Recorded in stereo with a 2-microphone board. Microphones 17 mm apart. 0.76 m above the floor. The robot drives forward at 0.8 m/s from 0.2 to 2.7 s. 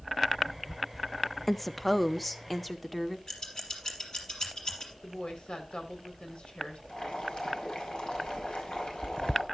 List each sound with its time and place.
1.5 s a woman speaking: 10° left (ahead or behind), 0.5 m; by 3.2 s 5° left (ahead or behind), 1.4 m
3.3 s scissors: 40° left (ahead or behind), 4 m
5.0 s a woman speaking: 70° left (ahead or behind), 4 m
6.9 s boiling: 65° left (ahead or behind), 4.5 m